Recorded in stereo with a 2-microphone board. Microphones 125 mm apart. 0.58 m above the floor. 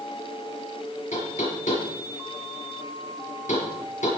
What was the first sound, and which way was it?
Knocking, 80° left.